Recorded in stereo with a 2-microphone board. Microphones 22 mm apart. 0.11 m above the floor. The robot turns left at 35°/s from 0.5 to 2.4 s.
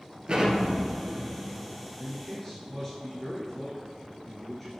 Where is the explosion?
90° right, 2.5 m; by 1.9 s 140° right, 2.5 m.